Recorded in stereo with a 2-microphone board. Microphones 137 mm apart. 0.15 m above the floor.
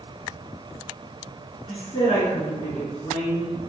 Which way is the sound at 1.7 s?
50° left (ahead or behind).